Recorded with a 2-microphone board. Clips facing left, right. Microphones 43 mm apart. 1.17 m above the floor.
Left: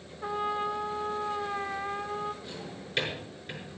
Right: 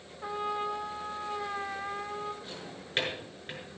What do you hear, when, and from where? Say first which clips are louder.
0.2 s a trumpet: left 2 dB; 5° left (ahead or behind), 0.5 m
2.4 s a drawer: left 2 dB; 35° right (ahead or behind), 6.5 m